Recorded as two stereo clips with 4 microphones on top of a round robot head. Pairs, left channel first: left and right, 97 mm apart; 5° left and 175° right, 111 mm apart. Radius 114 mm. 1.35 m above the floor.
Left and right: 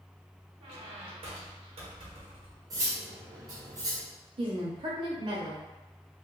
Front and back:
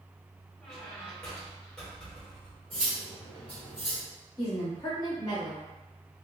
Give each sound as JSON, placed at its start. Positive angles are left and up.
{"t": 0.6, "sound": "a squeak", "azimuth_deg": -75, "distance_m": 0.9}
{"t": 2.7, "sound": "cutlery clinking", "azimuth_deg": -45, "distance_m": 0.9}
{"t": 4.4, "sound": "a woman speaking", "azimuth_deg": -60, "distance_m": 0.9}